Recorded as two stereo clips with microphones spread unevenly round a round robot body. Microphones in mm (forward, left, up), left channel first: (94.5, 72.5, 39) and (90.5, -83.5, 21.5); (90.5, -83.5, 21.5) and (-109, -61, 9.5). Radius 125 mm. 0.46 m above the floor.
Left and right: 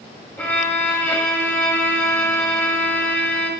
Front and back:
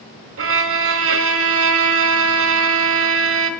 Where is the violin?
170° left, 1.2 m.